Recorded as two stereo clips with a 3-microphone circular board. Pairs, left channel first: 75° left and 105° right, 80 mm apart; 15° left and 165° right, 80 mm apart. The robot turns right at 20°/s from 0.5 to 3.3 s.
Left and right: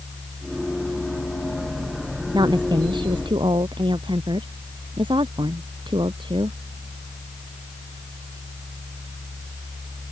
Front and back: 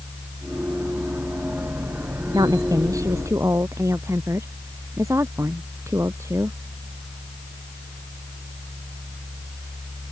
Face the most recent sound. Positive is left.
turn(degrees=-110)